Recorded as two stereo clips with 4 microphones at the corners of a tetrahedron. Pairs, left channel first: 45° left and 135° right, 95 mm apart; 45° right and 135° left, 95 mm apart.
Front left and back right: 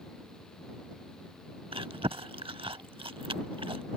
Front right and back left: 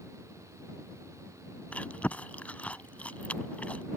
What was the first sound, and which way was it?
Chewing, 115° right.